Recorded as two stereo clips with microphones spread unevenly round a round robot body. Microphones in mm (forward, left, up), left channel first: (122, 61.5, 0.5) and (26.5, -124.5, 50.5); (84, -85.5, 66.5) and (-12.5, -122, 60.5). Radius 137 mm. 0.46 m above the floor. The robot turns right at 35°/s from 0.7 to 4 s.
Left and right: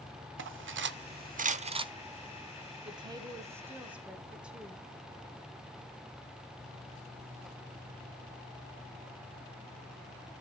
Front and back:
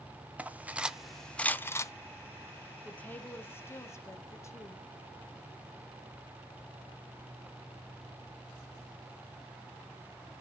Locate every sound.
0.4 s cutlery clinking: 85° right, 0.7 m; by 1.9 s 40° right, 0.7 m
2.9 s a woman speaking: 50° right, 1.0 m; by 4.8 s 10° right, 1.0 m